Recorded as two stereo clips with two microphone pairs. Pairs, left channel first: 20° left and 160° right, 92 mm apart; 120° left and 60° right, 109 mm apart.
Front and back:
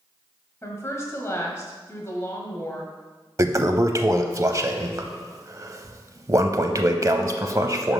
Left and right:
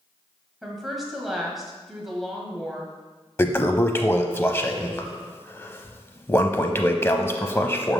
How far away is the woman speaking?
About 1.6 m.